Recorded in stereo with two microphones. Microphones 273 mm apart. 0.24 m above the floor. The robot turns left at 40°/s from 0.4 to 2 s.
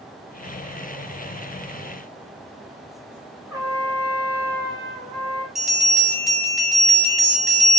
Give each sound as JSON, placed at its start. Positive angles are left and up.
{"t": 3.5, "sound": "a trumpet", "side_deg": -10, "distance_m": 1.9}
{"t": 5.5, "sound": "a bell", "side_deg": 0, "distance_m": 1.4}